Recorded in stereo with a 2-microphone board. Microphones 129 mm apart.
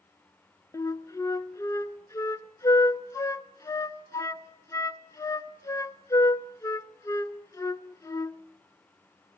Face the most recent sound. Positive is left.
turn(degrees=25)  # may be behind; listen again after turning